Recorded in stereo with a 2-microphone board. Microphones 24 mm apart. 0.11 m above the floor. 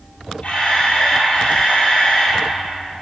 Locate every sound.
0.4 s a camera shutter: 60° left (ahead or behind), 3.5 m